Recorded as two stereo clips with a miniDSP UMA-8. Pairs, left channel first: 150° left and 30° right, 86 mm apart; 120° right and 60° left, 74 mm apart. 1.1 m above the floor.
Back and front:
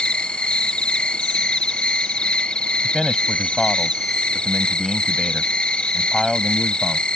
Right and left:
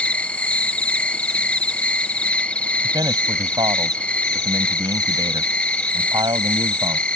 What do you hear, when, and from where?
0.0 s an insect: 155° right
2.8 s a man speaking: 60° left